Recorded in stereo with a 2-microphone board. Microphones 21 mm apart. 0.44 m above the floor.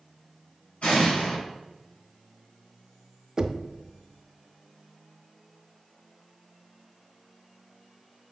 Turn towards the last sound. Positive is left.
turn(degrees=-30)  # may be behind; listen again after turning